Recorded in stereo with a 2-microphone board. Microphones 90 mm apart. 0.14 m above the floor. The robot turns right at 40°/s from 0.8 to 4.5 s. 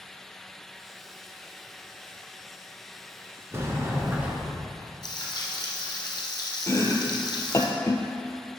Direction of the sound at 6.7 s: 35° left (ahead or behind).